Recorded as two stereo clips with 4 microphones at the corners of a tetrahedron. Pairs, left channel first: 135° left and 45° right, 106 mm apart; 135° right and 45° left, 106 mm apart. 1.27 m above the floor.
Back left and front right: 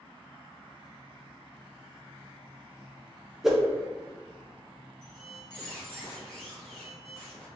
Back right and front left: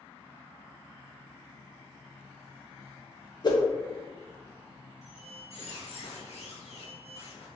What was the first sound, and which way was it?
A whoosh, 130° right.